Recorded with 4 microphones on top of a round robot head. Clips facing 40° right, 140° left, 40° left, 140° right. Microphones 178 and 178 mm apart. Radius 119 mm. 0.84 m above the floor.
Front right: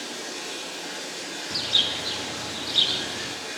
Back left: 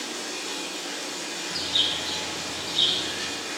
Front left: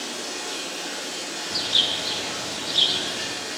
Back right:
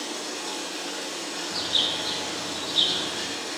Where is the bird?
30° right, 0.6 m.